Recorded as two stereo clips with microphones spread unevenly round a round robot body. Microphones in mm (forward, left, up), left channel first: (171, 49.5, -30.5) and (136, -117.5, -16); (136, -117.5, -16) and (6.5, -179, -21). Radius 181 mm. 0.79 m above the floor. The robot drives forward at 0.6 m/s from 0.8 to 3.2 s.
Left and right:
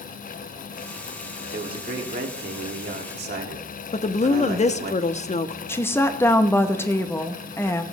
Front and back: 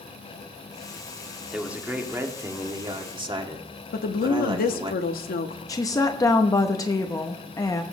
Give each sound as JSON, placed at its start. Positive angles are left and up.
{"t": 1.5, "sound": "a man speaking", "azimuth_deg": -70, "distance_m": 2.0}
{"t": 3.9, "sound": "a woman speaking", "azimuth_deg": 35, "distance_m": 0.8}
{"t": 5.7, "sound": "a woman speaking", "azimuth_deg": 50, "distance_m": 0.7}